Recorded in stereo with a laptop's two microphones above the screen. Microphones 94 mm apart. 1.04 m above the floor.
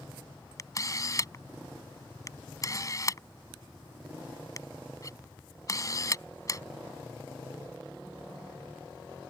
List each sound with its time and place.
0.6 s a camera shutter: 35° left (ahead or behind)